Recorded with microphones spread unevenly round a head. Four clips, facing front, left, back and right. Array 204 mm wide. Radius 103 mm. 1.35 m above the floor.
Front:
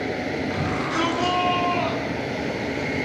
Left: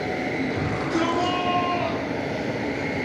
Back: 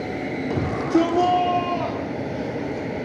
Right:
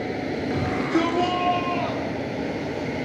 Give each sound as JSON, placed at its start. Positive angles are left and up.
{"t": 0.5, "sound": "a shout", "azimuth_deg": -165, "distance_m": 4.5}